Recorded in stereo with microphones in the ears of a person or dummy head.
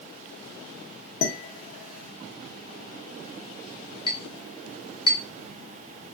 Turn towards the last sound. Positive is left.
turn(degrees=25)  # may be behind; listen again after turning